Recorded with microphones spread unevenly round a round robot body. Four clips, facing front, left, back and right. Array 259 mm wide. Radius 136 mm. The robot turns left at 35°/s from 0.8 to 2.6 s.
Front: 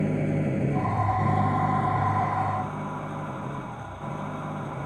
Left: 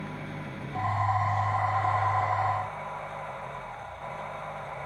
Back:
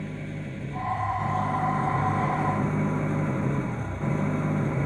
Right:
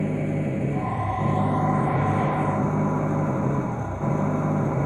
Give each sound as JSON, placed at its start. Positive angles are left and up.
{"t": 0.0, "sound": "an engine running", "azimuth_deg": -50}